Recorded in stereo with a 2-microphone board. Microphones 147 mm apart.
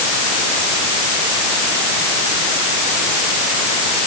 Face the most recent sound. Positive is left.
No sound to turn to.